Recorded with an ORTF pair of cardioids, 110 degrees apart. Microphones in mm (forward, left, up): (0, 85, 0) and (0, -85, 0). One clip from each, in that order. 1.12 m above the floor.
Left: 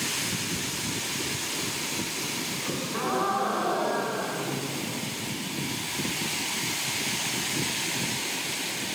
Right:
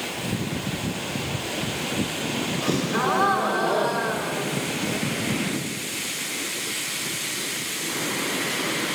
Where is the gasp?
40° right, 6 m.